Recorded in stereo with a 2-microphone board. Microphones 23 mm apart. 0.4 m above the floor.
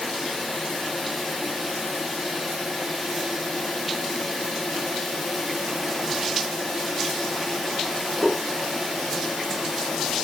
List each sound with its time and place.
Only background noise.